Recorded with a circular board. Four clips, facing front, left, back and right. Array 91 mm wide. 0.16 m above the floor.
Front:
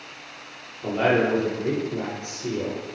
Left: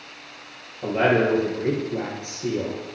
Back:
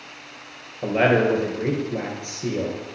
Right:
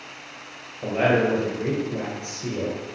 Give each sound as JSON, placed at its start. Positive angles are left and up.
{"t": 0.8, "sound": "a man speaking", "azimuth_deg": 180, "distance_m": 2.5}